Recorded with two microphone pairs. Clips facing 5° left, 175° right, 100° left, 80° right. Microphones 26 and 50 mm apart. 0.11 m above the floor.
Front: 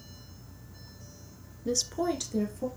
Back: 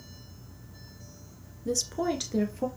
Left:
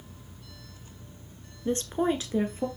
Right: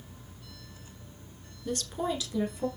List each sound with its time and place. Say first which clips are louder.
1.6 s a woman speaking: even, left 5 dB; 65° left, 1.2 m; by 2.7 s 145° left, 1.9 m